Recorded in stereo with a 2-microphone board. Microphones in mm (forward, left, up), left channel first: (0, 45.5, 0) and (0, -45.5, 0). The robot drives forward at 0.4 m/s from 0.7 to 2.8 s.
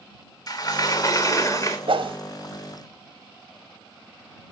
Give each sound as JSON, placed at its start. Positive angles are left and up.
{"t": 0.5, "sound": "a sliding door", "side_deg": 45, "distance_m": 1.7}
{"t": 1.9, "sound": "a whoosh", "side_deg": -70, "distance_m": 1.4}